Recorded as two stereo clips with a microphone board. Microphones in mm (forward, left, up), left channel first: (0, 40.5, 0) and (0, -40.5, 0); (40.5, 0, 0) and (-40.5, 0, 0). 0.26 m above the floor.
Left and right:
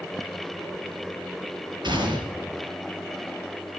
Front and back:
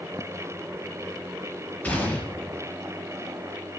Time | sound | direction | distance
1.8 | a gunshot | 70° right | 5 m